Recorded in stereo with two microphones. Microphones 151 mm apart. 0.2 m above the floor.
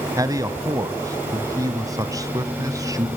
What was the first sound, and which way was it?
A man speaking, 25° right (ahead or behind).